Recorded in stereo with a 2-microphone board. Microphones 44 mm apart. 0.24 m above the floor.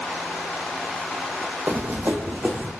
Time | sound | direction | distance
1.7 | running footsteps | 70° right (ahead or behind) | 0.6 m